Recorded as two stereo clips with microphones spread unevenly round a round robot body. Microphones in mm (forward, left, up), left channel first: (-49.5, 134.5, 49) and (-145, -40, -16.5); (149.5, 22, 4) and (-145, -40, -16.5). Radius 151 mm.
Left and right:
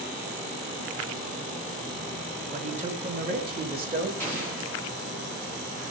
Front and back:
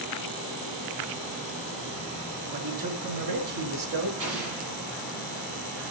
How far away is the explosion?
About 7.5 m.